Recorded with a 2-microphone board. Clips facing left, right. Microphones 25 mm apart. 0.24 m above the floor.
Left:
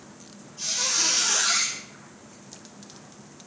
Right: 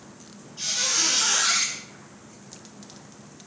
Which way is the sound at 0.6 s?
30° right (ahead or behind).